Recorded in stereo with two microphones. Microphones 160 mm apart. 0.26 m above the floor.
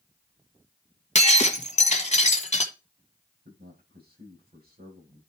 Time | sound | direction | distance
1.1 | breaking glass | 45° left (ahead or behind) | 1.3 m
3.5 | a man speaking | 70° right (ahead or behind) | 8 m